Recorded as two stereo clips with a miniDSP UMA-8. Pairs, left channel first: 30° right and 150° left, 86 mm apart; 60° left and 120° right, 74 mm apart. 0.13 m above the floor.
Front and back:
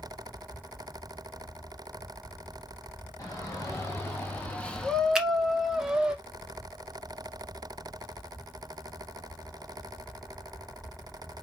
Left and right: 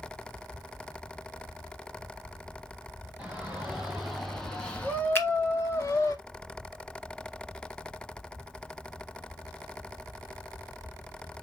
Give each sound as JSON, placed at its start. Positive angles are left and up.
{"t": 3.2, "sound": "a shout", "azimuth_deg": -55, "distance_m": 1.6}
{"t": 5.2, "sound": "a finger snap", "azimuth_deg": 75, "distance_m": 1.2}